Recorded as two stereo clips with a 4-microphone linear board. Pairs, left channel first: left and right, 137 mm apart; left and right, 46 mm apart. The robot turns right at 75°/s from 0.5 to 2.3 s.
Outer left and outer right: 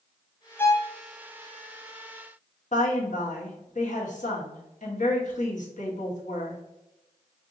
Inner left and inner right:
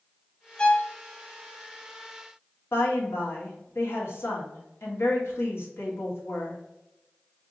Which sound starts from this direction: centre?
A violin, at 0.6 s.